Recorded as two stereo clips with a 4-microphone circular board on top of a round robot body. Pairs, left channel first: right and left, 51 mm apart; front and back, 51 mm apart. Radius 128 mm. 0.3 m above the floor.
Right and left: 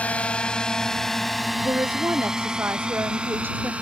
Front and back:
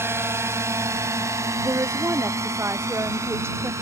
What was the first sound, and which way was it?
A drone, 150° right.